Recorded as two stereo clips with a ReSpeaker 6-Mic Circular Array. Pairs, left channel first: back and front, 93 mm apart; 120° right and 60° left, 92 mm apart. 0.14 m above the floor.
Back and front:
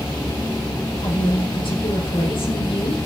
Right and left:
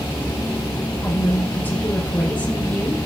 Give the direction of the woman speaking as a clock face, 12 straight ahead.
6 o'clock.